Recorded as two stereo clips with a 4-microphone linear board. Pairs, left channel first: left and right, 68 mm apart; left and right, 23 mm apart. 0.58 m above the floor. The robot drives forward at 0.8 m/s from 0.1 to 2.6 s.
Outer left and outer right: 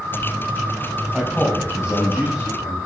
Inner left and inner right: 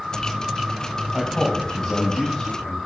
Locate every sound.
1.1 s a man speaking: 5° right (ahead or behind), 3.5 m